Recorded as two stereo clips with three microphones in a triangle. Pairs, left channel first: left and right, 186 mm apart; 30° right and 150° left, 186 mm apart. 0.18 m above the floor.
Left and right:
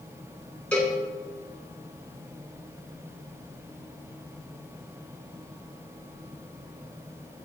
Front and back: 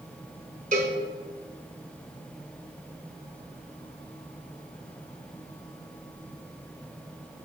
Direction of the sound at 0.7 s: 170° left.